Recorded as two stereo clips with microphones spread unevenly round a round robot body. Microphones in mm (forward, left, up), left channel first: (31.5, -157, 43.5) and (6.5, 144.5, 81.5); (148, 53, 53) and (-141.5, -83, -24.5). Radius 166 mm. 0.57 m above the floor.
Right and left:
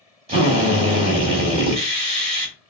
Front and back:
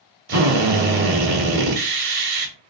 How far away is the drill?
About 1.2 m.